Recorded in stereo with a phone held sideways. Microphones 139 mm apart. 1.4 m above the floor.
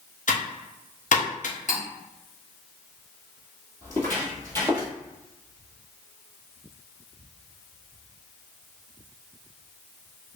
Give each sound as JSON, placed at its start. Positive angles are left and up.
{"t": 0.3, "sound": "typing on a keyboard", "side_deg": 70, "distance_m": 0.8}
{"t": 1.7, "sound": "cutlery clinking", "side_deg": 60, "distance_m": 1.8}
{"t": 3.8, "sound": "footsteps", "side_deg": 15, "distance_m": 1.8}